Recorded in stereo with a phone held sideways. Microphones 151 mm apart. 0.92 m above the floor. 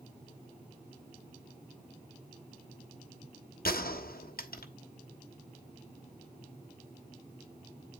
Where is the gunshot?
85° left, 1.3 m.